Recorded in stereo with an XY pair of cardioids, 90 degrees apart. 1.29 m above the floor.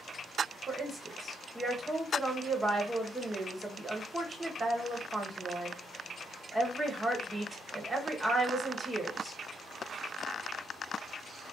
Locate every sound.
0.7 s a woman speaking: 25° right, 1.2 m